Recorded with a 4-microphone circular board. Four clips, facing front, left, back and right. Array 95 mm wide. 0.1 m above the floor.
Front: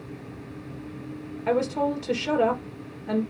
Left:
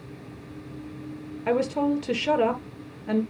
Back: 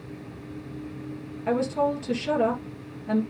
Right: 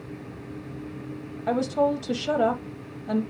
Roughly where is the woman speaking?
Left.